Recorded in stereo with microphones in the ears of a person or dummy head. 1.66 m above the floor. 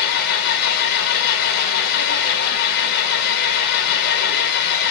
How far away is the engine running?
About 1.4 m.